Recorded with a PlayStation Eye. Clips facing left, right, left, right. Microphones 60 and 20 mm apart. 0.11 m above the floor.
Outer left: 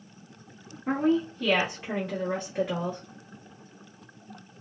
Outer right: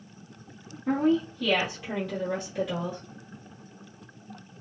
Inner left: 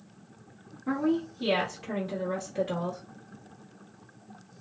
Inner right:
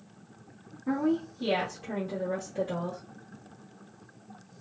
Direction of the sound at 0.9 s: 20° left (ahead or behind).